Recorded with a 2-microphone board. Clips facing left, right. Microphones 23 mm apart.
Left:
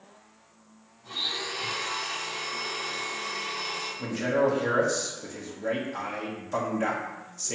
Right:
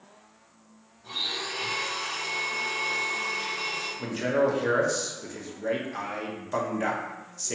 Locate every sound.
1.0 s a blender: 55° right (ahead or behind), 1.9 m
4.0 s a man speaking: 10° right (ahead or behind), 0.7 m